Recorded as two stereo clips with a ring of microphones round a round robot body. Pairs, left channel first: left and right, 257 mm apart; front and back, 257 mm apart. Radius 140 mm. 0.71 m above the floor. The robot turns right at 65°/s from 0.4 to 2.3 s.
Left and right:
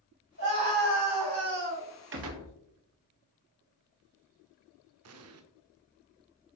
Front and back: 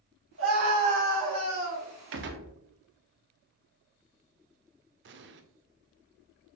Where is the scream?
135° right, 4 m; by 1.9 s 35° right, 4 m.